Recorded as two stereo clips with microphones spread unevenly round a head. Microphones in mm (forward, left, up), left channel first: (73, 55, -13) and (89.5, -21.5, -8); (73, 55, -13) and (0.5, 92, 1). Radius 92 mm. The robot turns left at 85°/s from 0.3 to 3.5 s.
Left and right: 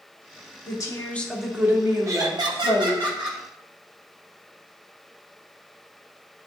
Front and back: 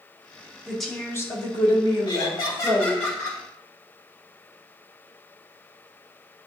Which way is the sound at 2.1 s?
30° right.